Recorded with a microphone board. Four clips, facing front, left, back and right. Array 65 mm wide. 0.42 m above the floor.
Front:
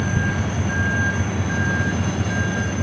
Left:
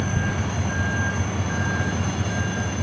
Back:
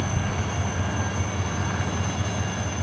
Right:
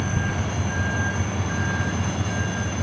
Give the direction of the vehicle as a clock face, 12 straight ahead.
12 o'clock.